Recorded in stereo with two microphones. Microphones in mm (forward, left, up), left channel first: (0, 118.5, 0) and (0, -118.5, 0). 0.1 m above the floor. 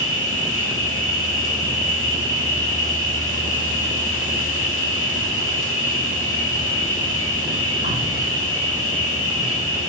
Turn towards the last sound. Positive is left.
turn(degrees=65)  # may be behind; listen again after turning